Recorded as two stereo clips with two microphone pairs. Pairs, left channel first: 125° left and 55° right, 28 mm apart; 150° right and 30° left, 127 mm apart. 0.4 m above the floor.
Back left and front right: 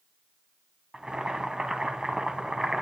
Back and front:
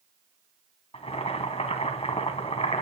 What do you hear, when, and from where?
0.9 s boiling: 115° right, 1.7 m